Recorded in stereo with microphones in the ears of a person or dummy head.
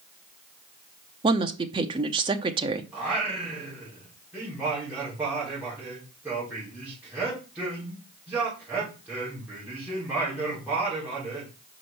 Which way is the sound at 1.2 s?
20° right (ahead or behind).